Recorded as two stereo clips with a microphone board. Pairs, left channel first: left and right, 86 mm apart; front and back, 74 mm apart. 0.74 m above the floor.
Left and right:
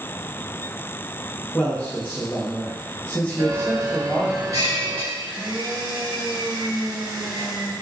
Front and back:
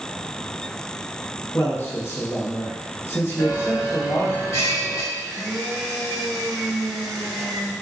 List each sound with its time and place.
1.5 s a man speaking: 30° left, 0.8 m
3.4 s a bell: 50° right, 1.2 m
5.1 s a blender: 80° right, 1.0 m